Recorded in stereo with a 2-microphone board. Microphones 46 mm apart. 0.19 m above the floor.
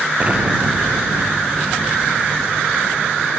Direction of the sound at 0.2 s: 30° right (ahead or behind).